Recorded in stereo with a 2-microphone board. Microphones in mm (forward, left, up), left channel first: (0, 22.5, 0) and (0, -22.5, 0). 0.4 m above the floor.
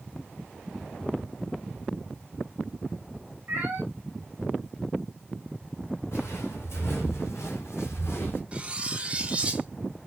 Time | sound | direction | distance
3.5 | a cat meowing | 45° right (ahead or behind) | 1.6 m
6.1 | footsteps | 60° left (ahead or behind) | 2 m
8.5 | cutlery clinking | 25° right (ahead or behind) | 0.6 m